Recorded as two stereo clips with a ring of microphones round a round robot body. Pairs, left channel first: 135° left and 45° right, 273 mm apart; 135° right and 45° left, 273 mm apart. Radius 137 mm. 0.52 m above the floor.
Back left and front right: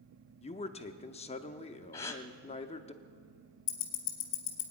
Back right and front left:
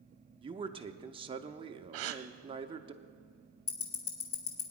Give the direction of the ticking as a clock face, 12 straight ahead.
6 o'clock.